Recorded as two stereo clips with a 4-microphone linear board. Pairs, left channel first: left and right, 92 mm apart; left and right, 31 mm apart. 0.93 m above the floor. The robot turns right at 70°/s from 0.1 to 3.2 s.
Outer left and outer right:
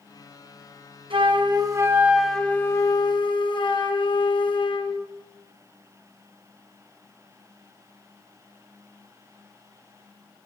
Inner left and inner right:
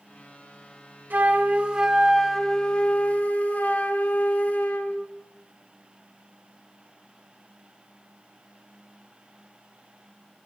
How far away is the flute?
About 1.0 m.